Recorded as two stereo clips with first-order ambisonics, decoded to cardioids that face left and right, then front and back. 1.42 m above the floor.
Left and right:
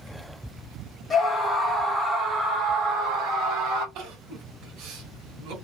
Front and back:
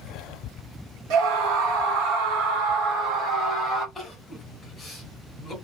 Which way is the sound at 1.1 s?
160° left.